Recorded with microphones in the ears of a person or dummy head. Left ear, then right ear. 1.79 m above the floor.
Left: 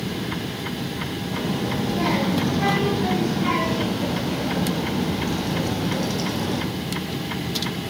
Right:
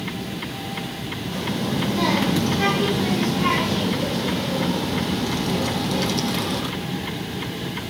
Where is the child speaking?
75° right (ahead or behind), 5.5 m.